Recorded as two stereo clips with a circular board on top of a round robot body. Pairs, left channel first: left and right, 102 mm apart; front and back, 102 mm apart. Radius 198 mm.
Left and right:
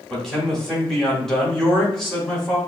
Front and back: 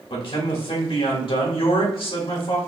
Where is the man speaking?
5° left, 2.5 m.